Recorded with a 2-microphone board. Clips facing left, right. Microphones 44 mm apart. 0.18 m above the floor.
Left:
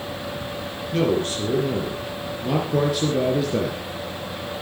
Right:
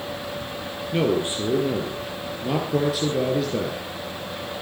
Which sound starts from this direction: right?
A man speaking, at 0.9 s.